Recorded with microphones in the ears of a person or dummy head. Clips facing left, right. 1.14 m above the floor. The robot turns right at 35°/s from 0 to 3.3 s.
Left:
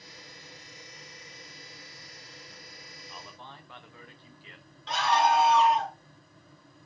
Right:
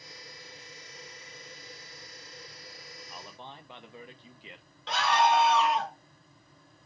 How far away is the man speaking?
About 0.7 m.